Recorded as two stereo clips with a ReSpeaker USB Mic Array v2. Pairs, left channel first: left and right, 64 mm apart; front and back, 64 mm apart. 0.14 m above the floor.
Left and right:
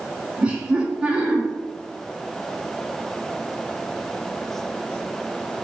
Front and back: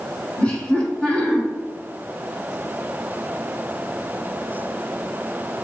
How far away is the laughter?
About 1.1 m.